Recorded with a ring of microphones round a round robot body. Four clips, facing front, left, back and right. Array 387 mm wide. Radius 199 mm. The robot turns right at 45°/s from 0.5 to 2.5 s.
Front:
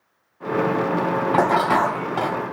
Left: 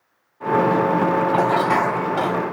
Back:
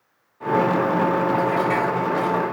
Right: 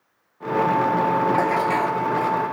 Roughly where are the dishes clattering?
Ahead.